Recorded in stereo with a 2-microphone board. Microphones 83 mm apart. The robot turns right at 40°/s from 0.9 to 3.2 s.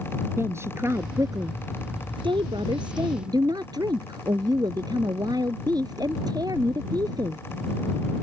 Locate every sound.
0.4 s a woman speaking: 145° right; by 7.4 s 55° right